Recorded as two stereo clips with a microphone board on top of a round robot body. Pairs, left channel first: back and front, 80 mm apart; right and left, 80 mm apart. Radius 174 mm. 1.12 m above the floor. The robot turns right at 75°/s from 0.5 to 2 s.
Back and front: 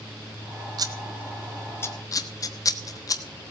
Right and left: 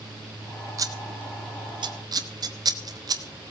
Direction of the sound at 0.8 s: 40° left.